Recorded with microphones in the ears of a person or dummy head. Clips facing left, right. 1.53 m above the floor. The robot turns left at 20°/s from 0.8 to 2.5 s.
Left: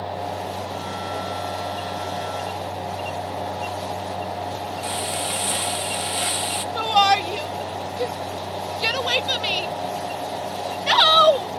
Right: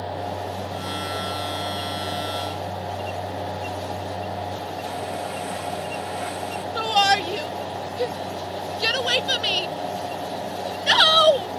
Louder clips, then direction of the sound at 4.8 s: Even; 45° left (ahead or behind).